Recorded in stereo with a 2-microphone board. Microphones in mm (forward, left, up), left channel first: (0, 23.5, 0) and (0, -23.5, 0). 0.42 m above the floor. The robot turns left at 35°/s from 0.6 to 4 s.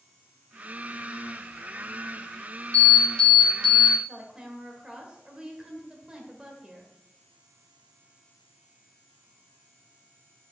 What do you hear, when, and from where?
2.7 s an alarm: 20° left, 4 m; by 4.0 s 20° right, 4 m
4.1 s a woman speaking: 20° right (ahead or behind), 1.6 m